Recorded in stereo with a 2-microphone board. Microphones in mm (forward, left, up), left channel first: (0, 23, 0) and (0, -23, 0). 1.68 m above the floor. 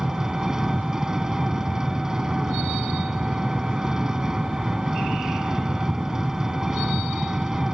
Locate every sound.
0.0 s an engine running: 15° right (ahead or behind)